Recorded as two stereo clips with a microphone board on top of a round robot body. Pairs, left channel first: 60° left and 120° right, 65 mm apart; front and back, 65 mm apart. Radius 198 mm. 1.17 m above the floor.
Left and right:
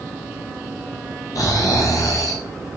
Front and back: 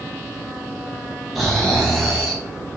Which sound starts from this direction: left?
Snoring, at 1.4 s.